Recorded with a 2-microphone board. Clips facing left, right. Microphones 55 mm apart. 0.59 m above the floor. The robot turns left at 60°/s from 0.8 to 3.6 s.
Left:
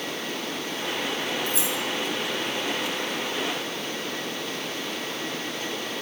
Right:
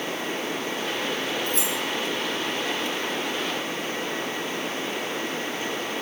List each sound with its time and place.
1.5 s keys jangling: 50° right (ahead or behind), 2.5 m; by 1.8 s 70° right (ahead or behind), 2.5 m